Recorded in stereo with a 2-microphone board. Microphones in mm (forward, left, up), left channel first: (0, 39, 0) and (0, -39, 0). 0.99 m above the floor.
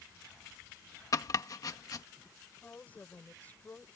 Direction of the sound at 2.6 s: 20° left (ahead or behind).